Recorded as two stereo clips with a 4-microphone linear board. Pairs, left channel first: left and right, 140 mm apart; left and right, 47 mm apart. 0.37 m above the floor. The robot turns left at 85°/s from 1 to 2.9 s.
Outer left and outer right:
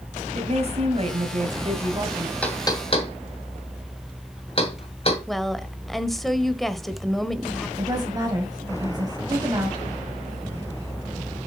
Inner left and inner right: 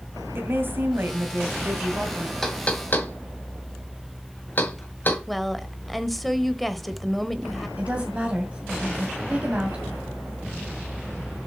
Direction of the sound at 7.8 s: 30° right (ahead or behind).